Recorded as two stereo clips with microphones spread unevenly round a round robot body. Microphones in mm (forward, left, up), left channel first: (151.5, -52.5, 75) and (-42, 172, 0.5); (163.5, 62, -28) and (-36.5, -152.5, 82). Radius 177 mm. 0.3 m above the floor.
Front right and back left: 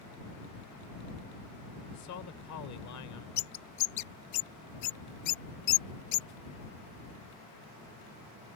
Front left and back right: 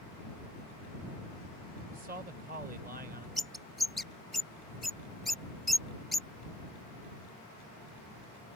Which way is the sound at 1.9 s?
60° right.